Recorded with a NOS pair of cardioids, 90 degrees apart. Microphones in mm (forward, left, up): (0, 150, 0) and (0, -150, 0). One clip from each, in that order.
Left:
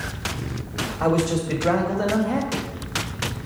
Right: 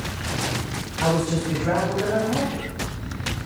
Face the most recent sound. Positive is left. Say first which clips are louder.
# left 1 dB
turn(degrees=50)